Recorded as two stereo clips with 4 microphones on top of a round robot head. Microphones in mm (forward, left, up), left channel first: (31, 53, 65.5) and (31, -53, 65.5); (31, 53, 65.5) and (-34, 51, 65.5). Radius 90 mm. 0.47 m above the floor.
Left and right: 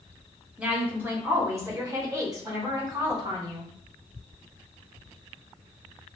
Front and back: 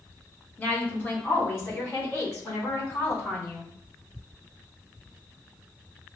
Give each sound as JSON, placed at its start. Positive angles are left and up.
{"t": 0.6, "sound": "a woman speaking", "azimuth_deg": -20, "distance_m": 1.2}